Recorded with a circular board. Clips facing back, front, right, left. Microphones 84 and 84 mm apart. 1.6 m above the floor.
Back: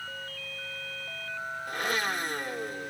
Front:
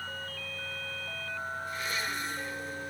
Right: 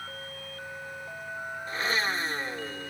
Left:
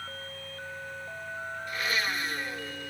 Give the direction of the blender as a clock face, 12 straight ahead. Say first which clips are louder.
Back 9 dB, right 2 dB; 5 o'clock.